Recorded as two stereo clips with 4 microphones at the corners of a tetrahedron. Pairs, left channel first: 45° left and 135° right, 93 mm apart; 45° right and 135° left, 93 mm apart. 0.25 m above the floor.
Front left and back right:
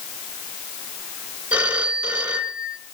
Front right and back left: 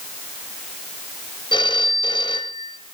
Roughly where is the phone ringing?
Ahead right.